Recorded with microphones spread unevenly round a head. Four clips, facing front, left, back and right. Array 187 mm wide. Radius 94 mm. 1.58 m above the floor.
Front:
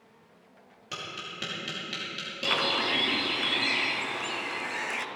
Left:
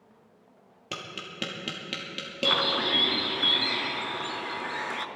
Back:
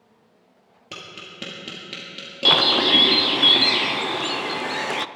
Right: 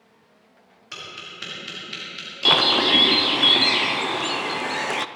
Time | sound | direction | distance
0.9 | tapping | 115° left | 2.5 m
2.5 | a bird | 140° right | 0.5 m